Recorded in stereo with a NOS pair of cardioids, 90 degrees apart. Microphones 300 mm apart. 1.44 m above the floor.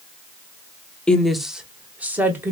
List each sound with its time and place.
1.1 s a woman speaking: 5° left, 0.7 m; by 2.5 s 5° right, 1.6 m